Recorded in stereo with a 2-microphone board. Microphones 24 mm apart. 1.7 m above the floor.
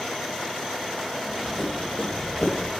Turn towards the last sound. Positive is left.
turn(degrees=50)  # may be behind; listen again after turning